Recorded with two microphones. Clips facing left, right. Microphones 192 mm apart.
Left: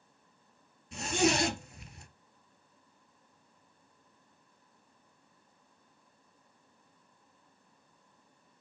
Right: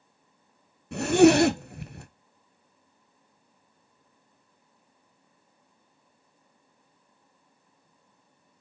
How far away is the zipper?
About 0.5 m.